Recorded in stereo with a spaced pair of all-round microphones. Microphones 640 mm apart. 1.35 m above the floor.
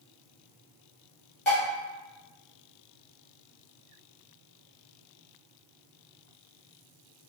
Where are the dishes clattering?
45° left (ahead or behind), 1.9 m.